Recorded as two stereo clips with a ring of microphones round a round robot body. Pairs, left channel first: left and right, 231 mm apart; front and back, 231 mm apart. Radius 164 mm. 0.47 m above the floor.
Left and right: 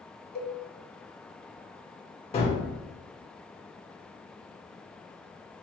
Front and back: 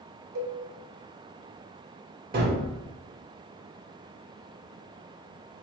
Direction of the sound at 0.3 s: 145° left.